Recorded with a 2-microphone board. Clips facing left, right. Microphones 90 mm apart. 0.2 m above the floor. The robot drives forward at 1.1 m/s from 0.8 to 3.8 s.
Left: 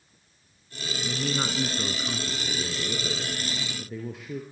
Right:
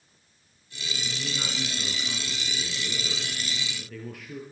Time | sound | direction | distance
1.0 | a man speaking | 55° left (ahead or behind) | 1.9 m